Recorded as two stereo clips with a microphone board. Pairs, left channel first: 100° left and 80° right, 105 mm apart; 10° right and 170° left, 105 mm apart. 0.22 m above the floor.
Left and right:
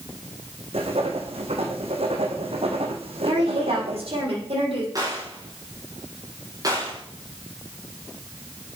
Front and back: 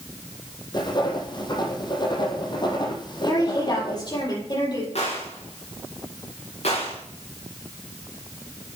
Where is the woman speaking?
60° right, 7.5 m.